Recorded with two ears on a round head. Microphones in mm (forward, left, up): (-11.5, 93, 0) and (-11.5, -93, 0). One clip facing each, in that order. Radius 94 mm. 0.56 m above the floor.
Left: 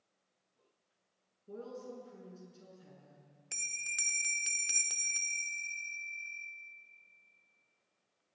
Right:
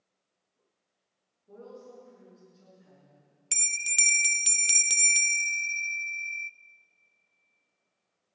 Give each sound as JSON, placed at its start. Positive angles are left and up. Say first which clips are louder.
{"t": 1.5, "sound": "a woman speaking", "louder": "left 1 dB", "side_deg": 40, "distance_m": 7.5}
{"t": 3.5, "sound": "a bell", "louder": "right 12 dB", "side_deg": -40, "distance_m": 0.6}